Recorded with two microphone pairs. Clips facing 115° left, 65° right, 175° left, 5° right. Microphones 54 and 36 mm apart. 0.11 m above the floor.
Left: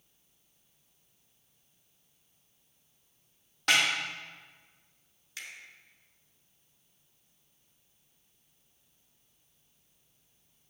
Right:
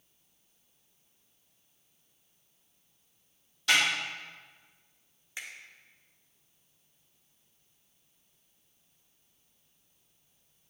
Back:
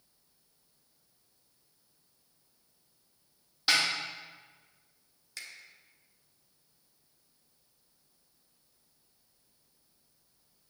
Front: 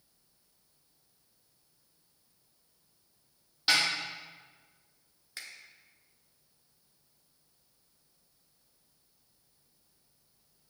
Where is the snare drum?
85° left, 3.5 m.